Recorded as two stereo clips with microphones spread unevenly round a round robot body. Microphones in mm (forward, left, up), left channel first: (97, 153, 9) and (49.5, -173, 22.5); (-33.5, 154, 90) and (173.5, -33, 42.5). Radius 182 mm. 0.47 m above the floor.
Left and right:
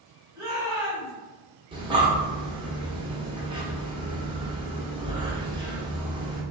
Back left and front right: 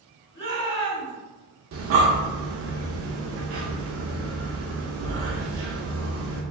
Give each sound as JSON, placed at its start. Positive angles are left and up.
{"t": 0.3, "sound": "a shout", "azimuth_deg": 180, "distance_m": 1.5}
{"t": 1.7, "sound": "breathing", "azimuth_deg": -20, "distance_m": 0.7}